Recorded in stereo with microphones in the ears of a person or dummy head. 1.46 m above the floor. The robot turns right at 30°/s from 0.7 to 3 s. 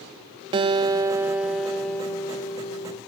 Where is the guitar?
30° right, 1.0 m; by 3.0 s 40° left, 1.0 m.